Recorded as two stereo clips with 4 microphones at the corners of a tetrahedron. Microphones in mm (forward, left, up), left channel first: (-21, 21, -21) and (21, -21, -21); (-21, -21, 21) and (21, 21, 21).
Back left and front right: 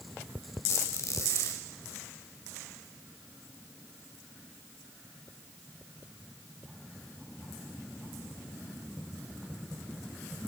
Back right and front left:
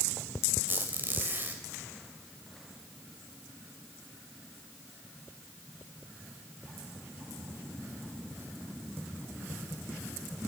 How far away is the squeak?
About 2.5 m.